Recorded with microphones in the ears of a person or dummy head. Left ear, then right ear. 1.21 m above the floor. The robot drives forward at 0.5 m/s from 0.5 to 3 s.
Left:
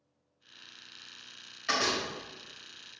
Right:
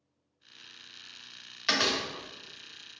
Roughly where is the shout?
I don't hear a shout.